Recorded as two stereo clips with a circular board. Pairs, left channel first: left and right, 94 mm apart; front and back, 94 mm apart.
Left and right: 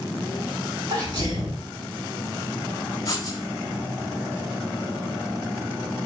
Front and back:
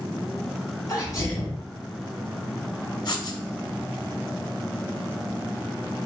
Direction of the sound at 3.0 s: 40° left.